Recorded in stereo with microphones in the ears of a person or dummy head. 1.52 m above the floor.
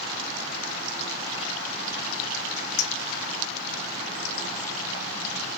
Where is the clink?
50° left (ahead or behind), 1.5 m.